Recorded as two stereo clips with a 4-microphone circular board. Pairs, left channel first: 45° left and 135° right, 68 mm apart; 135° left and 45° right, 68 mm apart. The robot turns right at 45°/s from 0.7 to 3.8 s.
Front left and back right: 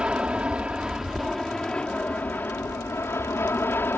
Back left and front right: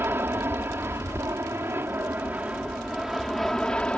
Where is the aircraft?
70° right; by 4.0 s 70° left.